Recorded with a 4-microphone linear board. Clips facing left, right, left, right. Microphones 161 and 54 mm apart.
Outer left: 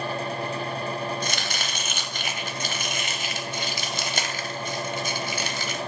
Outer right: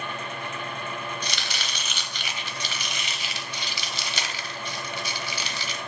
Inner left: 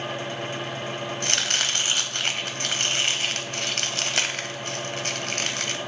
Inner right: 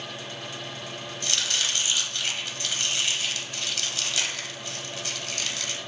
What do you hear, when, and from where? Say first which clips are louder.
1.2 s chopping: outer left 4 dB, inner left 2 dB; 45° left (ahead or behind), 0.7 m